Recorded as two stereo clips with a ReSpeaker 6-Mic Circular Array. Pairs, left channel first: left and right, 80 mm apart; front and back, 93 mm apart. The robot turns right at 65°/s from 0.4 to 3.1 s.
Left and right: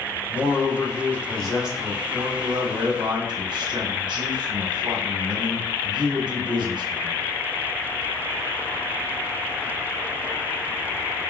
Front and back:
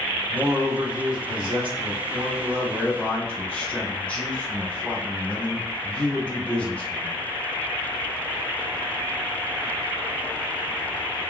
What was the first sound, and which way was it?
A man speaking, 110° left.